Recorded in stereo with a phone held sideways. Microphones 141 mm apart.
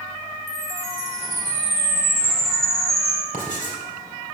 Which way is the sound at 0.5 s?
Centre (ahead or behind).